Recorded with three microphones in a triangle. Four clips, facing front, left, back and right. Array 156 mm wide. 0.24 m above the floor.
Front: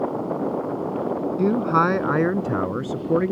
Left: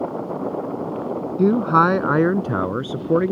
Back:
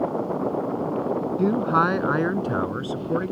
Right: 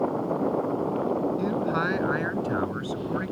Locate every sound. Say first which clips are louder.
1.4 s a man speaking: left 10 dB, front 2 dB; 85° left; by 3.3 s 70° left